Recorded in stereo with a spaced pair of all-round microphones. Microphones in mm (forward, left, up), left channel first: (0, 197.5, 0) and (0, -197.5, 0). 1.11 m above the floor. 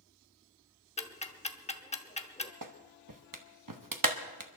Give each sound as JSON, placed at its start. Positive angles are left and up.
{"t": 1.0, "sound": "ticking", "side_deg": 15, "distance_m": 0.9}
{"t": 2.6, "sound": "a clap", "side_deg": -55, "distance_m": 1.0}